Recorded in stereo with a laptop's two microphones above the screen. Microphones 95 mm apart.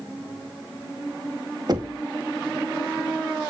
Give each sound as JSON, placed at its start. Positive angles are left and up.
{"t": 1.7, "sound": "knocking", "side_deg": -45, "distance_m": 1.1}